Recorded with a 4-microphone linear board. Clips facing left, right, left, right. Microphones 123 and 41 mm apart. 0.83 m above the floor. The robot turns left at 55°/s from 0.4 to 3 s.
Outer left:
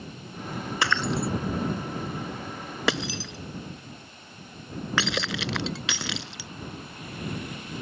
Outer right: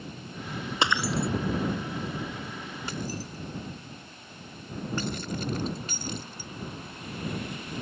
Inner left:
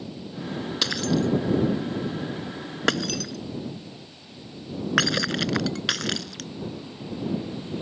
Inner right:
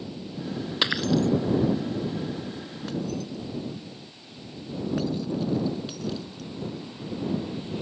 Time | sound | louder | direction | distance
0.8 | breaking glass | even, inner right 1 dB | 20° right (ahead or behind) | ?